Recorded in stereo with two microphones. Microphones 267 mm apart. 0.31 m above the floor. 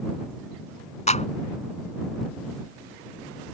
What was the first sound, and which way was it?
A clap, 25° left (ahead or behind).